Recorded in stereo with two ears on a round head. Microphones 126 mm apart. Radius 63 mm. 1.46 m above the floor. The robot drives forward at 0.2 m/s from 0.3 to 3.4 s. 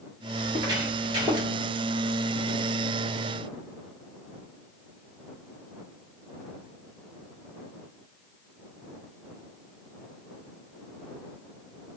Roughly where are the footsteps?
Right.